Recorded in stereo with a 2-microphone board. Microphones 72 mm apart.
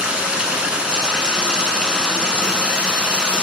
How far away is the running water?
About 0.8 m.